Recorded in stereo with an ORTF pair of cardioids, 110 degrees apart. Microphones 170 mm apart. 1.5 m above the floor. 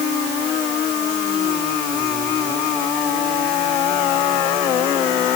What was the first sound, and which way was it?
Only background noise.